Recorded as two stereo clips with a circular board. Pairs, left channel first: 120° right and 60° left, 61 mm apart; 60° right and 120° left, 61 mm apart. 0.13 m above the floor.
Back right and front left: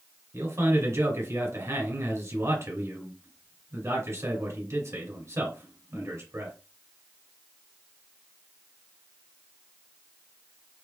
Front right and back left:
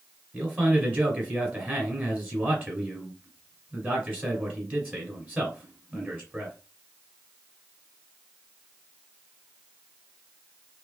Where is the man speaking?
65° left, 2.5 m.